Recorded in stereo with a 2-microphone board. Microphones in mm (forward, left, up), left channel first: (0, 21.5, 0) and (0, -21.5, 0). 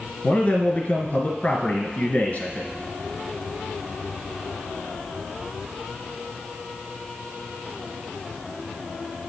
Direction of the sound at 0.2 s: 35° left (ahead or behind).